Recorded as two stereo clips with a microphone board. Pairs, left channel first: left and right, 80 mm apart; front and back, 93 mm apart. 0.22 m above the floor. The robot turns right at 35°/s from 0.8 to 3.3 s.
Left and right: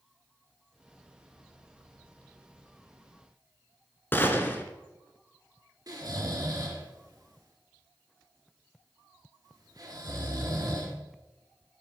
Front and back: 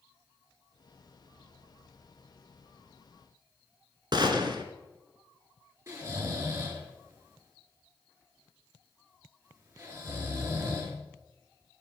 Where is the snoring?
125° right, 4 m.